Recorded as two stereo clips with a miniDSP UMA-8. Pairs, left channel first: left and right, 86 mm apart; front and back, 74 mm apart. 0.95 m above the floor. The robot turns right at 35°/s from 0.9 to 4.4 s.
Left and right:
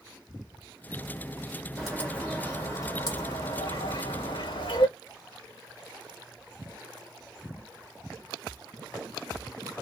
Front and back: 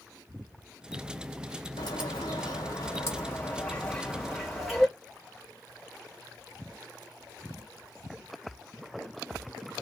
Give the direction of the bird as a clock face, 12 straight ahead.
12 o'clock.